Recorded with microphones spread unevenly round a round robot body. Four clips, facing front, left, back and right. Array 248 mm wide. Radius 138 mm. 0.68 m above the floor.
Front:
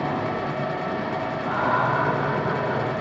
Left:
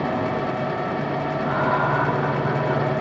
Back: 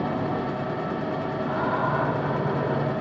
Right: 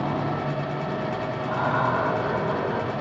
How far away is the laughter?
About 3.5 m.